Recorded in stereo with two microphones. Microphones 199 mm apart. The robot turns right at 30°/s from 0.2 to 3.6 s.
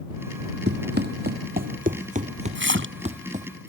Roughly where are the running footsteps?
Right.